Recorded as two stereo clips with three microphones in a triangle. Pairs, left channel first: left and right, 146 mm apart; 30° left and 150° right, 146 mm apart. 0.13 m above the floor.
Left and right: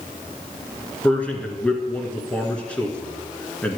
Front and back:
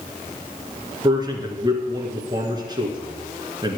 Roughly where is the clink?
I don't hear a clink.